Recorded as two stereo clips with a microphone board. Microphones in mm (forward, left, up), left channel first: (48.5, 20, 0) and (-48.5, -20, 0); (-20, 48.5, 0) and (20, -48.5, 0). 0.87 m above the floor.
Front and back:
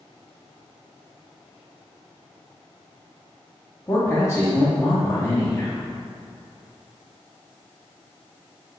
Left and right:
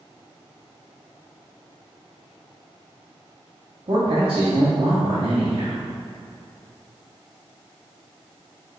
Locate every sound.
3.9 s a man speaking: 35° right, 1.2 m